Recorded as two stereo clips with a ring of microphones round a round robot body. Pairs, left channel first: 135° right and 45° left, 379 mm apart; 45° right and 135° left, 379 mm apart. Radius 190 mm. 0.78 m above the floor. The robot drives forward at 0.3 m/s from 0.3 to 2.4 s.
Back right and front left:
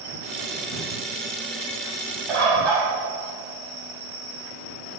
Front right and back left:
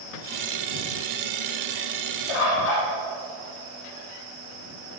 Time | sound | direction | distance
2.3 | a bird | 45° right | 6 m